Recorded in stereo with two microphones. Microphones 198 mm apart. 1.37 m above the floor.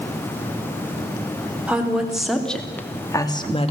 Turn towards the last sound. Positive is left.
turn(degrees=35)  # may be behind; listen again after turning